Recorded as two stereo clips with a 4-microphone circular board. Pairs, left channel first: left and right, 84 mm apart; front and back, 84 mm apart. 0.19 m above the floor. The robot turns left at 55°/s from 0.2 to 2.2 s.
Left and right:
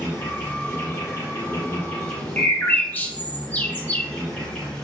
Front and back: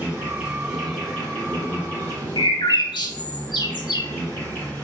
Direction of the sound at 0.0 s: 130° left.